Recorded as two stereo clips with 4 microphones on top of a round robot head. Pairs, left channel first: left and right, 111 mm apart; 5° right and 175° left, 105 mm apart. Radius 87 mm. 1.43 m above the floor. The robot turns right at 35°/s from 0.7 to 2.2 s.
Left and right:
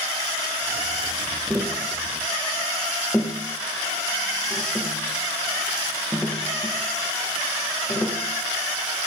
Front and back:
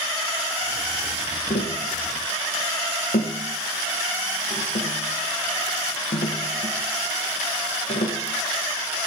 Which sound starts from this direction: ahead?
Tapping, at 1.5 s.